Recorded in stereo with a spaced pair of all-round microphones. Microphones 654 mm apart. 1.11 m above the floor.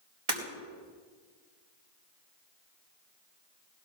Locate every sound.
0.3 s breaking glass: 65° right (ahead or behind), 4.5 m